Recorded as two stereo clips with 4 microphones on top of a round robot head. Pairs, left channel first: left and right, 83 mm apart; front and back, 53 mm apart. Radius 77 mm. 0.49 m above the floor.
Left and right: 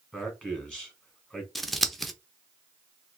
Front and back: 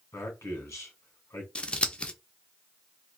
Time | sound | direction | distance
0.1 | a man speaking | 15° left | 2 m
1.6 | scissors | 5° left | 0.8 m